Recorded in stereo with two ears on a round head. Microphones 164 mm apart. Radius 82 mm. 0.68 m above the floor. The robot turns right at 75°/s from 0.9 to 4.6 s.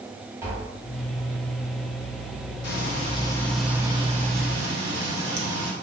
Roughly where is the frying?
Left.